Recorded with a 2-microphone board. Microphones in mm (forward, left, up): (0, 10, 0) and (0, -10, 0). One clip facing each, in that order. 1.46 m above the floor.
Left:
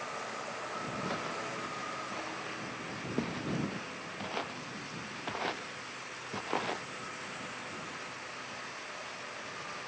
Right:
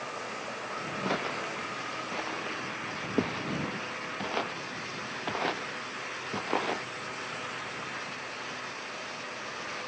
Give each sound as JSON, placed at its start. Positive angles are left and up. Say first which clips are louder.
{"t": 1.0, "sound": "footsteps", "louder": "right 5 dB", "side_deg": -20}